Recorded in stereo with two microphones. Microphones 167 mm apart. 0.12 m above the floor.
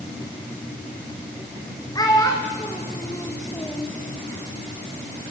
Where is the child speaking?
20° left (ahead or behind), 4.5 m; by 3.9 s 15° left (ahead or behind), 3.5 m.